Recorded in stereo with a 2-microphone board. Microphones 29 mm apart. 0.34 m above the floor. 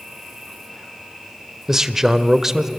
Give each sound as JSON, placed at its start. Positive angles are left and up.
{"t": 0.0, "sound": "an insect", "side_deg": 0, "distance_m": 7.5}
{"t": 1.7, "sound": "a man speaking", "side_deg": -10, "distance_m": 1.0}